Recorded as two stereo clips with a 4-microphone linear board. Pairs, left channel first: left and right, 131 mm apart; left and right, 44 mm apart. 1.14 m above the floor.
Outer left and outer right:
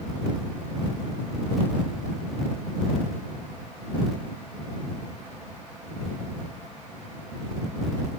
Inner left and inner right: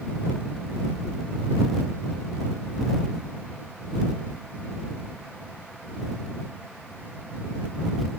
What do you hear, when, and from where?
Only background noise.